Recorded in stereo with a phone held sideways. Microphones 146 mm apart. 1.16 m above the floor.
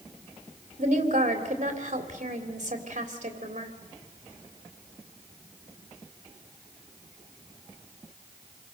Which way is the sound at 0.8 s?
55° right (ahead or behind).